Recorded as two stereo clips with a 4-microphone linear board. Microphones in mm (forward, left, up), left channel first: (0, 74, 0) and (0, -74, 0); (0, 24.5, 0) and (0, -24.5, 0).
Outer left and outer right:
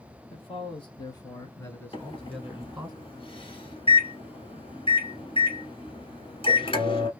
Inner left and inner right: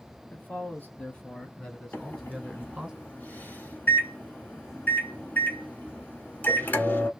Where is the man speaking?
35° left (ahead or behind), 1.7 m; by 2.9 s 10° right (ahead or behind), 1.4 m.